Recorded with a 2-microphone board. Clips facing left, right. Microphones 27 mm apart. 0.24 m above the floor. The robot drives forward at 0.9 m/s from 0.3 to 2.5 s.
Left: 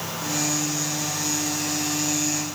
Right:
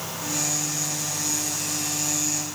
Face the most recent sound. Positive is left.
No sound to turn to.